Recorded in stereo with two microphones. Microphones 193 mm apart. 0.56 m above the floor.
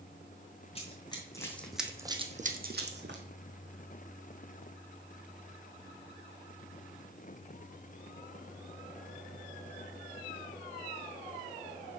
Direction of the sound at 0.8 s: 30° left (ahead or behind).